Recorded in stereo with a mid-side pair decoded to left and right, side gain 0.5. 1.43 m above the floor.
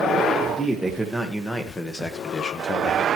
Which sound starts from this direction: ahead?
A man speaking, at 0.5 s.